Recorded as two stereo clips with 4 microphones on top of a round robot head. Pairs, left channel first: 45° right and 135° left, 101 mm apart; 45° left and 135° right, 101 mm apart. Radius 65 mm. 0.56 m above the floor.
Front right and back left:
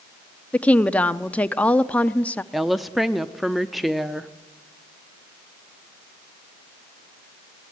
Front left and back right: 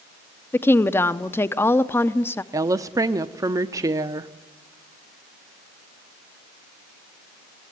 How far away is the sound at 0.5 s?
About 0.7 m.